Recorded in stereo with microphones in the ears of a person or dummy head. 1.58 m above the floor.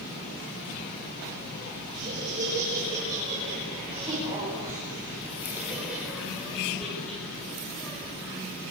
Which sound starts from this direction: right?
Laughter, at 1.9 s.